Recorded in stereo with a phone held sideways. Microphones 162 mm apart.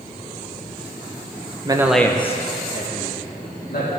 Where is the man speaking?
25° right (ahead or behind), 1.0 m; by 3.9 s 85° left, 3 m.